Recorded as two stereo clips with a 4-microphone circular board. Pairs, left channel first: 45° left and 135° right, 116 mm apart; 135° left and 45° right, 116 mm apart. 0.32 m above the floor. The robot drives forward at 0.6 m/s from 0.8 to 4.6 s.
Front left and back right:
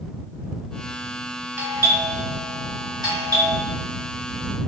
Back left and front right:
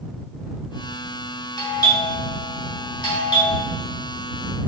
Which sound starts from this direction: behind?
A doorbell, at 1.6 s.